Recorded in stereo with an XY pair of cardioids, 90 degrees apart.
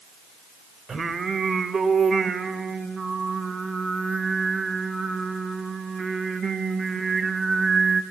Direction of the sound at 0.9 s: 35° right.